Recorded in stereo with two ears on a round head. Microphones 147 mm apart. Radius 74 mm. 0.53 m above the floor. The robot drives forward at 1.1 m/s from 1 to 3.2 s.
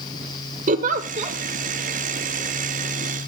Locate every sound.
0.7 s a giggle: 50° right (ahead or behind), 0.9 m; by 1.4 s 35° right (ahead or behind), 1.2 m